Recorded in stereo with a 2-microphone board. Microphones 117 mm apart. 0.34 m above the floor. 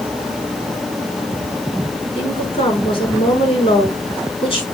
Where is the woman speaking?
55° left (ahead or behind), 4 m.